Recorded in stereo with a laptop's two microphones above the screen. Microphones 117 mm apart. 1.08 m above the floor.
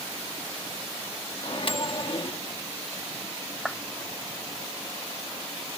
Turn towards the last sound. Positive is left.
turn(degrees=0)  # may be behind; listen again after turning